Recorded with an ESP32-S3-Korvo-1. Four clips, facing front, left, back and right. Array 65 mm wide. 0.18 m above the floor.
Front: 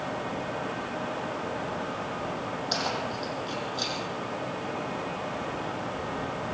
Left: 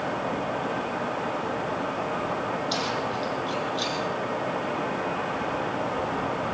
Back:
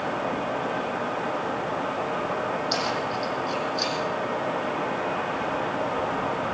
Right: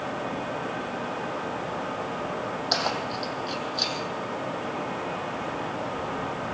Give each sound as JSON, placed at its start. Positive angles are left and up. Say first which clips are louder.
{"t": 2.7, "sound": "keys jangling", "louder": "even, back 4 dB", "azimuth_deg": -90, "distance_m": 5.5}